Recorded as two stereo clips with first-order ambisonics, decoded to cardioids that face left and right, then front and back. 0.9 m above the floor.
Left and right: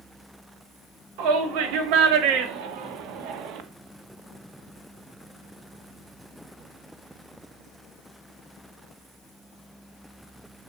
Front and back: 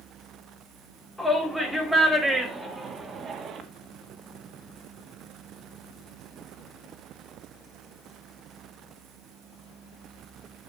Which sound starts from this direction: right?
A shout, at 1.2 s.